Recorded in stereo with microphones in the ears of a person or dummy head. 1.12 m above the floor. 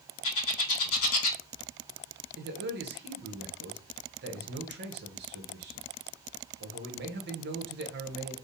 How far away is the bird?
About 1.5 m.